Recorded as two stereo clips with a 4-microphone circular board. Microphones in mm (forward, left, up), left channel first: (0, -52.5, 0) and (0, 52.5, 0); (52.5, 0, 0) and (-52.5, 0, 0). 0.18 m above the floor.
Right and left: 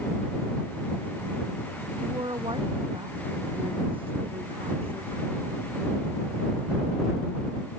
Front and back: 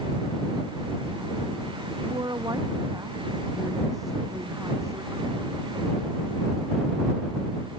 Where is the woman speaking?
130° left; by 5.6 s 115° left.